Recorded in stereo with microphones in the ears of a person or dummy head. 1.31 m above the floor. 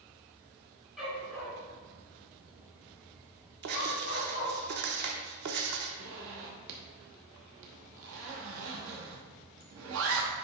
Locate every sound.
1.0 s a dog barking: 5° right (ahead or behind), 3 m; by 4.5 s 50° left (ahead or behind), 3.5 m
3.6 s writing: 55° right (ahead or behind), 0.9 m
6.0 s a zipper: 60° right (ahead or behind), 1.1 m